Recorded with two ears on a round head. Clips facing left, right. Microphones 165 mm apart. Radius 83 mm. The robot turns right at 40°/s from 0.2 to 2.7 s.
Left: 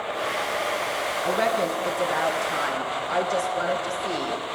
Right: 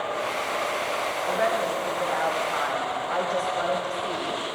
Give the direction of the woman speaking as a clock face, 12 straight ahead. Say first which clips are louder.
Left 2 dB; 9 o'clock.